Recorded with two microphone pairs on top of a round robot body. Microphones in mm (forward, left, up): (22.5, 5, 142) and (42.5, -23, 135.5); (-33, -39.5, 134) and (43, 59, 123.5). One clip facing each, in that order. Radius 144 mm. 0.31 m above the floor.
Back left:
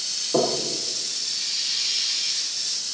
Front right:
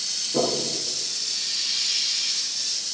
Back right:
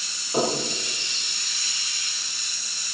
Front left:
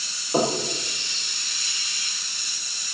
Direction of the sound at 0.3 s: 125° left.